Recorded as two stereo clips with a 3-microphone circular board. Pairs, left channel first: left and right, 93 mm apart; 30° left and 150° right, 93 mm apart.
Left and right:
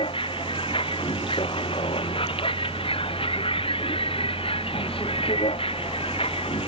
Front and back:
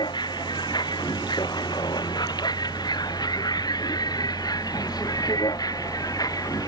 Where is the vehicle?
70° left; by 6.7 s 80° left.